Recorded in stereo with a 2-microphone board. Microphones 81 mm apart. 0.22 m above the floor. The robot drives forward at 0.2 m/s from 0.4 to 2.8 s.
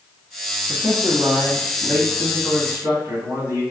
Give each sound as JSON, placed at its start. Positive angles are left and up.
{"t": 0.7, "sound": "a man speaking", "side_deg": -30, "distance_m": 1.9}